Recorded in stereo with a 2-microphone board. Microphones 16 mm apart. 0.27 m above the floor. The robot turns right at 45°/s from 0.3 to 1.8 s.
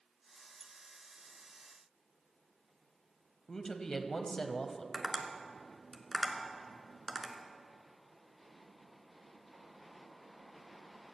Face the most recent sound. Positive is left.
turn(degrees=5)  # may be behind; listen again after turning